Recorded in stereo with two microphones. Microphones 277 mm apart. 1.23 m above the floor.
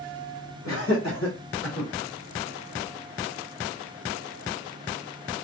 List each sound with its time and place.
0.7 s laughter: 55° left (ahead or behind), 2.5 m; by 1.9 s 65° left (ahead or behind), 3 m